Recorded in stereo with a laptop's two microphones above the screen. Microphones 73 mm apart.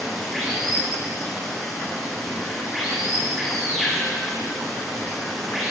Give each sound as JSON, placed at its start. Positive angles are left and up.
{"t": 0.0, "sound": "running water", "side_deg": 0, "distance_m": 6.0}